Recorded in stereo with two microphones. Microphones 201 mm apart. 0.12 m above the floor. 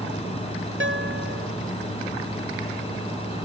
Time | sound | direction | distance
0.8 | a guitar | 65° right (ahead or behind) | ?